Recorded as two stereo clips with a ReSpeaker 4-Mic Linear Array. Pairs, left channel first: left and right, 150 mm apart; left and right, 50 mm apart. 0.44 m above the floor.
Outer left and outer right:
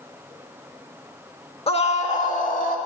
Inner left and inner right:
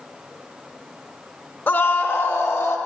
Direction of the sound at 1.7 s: 40° left (ahead or behind).